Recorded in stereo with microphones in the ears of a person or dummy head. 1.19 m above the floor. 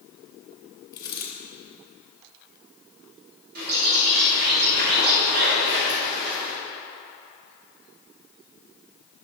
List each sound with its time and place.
0.9 s a dropped coin: 20° left (ahead or behind), 1.8 m
3.5 s a bird: 55° right (ahead or behind), 3 m